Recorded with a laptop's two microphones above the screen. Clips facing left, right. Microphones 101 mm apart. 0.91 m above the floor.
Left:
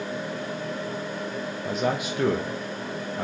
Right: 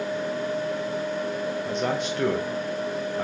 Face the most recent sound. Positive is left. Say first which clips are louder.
# left 3 dB
turn(degrees=5)  # may be behind; listen again after turning